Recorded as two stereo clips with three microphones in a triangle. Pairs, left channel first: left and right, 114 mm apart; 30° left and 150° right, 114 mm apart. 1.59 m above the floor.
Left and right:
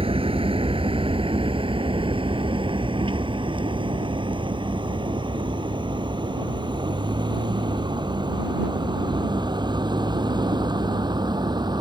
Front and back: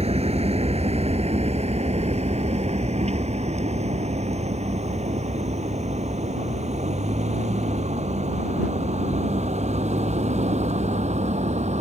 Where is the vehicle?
125° right; by 11.8 s 140° right.